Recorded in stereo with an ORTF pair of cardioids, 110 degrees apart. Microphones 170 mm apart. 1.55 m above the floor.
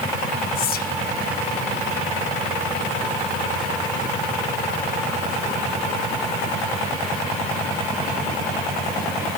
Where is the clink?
I don't hear a clink.